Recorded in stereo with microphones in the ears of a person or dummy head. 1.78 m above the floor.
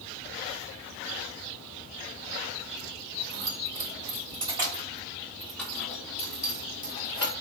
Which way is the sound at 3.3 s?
50° right (ahead or behind).